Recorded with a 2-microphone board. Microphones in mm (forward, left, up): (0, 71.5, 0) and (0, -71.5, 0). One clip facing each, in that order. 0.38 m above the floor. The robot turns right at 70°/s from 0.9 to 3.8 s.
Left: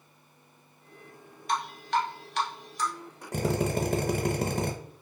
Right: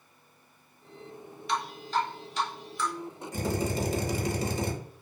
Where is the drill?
85° left, 0.5 m; by 4.7 s 115° left, 0.5 m.